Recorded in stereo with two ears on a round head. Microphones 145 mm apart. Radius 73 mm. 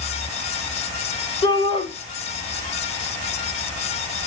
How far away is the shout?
About 2 m.